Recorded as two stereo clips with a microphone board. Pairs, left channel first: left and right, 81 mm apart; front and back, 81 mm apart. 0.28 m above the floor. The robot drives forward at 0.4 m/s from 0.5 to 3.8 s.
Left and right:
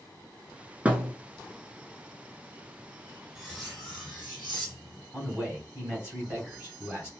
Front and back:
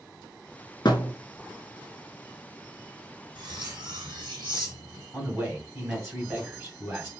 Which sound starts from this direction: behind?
Cutlery clinking, at 3.4 s.